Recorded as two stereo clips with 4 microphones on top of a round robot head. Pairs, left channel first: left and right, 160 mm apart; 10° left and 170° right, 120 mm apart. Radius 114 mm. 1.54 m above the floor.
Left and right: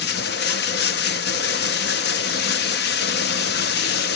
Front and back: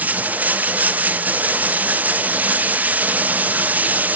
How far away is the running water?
About 0.7 m.